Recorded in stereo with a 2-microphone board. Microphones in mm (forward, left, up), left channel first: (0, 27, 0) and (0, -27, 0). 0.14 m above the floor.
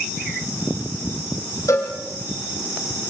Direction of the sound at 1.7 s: 70° left (ahead or behind).